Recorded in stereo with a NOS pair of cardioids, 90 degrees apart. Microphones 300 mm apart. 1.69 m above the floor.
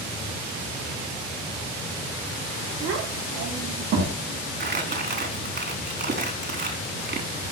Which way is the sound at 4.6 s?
35° right.